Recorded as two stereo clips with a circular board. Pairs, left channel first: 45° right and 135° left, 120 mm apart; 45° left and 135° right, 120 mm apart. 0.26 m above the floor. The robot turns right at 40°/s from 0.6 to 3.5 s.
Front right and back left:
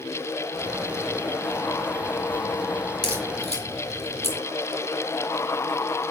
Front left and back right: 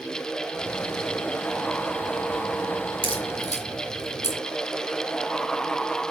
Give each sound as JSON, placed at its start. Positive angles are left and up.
{"t": 3.0, "sound": "a crack", "azimuth_deg": -95, "distance_m": 4.5}